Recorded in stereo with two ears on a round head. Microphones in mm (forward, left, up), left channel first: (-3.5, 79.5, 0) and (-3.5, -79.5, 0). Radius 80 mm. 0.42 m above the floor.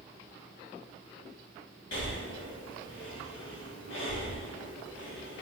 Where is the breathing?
75° left (ahead or behind), 1.2 m.